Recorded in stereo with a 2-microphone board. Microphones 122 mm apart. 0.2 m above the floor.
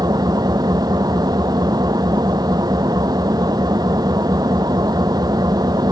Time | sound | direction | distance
0.0 | an engine running | 30° right (ahead or behind) | ?